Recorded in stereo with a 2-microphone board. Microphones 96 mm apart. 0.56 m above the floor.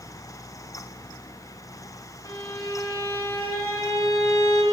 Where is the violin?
30° left (ahead or behind), 1.9 m.